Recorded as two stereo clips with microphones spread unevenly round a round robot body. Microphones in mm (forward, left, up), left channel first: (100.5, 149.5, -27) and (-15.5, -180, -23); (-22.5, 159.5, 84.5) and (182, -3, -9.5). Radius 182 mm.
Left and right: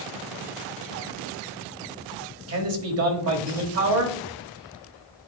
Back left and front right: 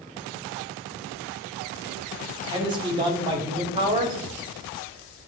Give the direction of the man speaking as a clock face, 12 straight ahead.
3 o'clock.